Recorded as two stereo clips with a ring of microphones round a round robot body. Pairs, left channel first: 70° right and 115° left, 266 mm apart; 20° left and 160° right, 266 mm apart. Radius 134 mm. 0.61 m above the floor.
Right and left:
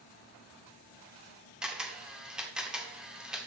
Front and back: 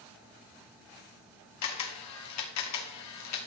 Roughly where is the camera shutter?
Ahead left.